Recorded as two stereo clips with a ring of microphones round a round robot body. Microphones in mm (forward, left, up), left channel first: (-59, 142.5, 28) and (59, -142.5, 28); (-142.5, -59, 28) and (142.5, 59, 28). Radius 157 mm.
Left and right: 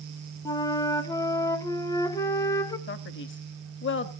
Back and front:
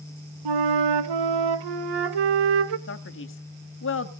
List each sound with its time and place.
0.5 s a flute: 35° left, 1.1 m
2.9 s a man speaking: 160° left, 1.5 m